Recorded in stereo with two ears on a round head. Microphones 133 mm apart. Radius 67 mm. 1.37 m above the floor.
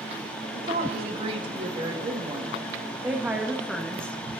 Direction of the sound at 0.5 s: 45° right (ahead or behind).